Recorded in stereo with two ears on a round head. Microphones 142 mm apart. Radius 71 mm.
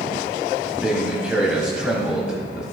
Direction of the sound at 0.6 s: 5° right (ahead or behind).